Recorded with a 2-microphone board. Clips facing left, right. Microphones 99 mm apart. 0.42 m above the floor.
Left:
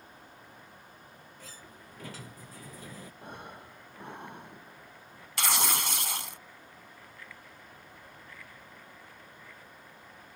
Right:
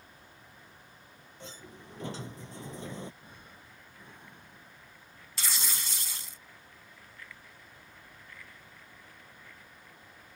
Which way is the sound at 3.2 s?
70° left (ahead or behind).